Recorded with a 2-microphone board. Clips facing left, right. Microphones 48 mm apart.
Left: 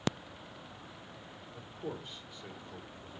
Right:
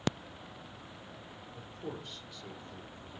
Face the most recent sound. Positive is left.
turn(degrees=35)  # may be behind; listen again after turning